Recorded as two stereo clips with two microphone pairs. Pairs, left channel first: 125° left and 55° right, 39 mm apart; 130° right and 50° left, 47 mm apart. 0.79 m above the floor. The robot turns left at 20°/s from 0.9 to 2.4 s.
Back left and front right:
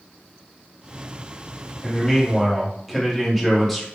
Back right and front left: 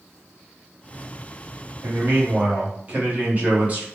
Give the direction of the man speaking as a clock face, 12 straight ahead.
10 o'clock.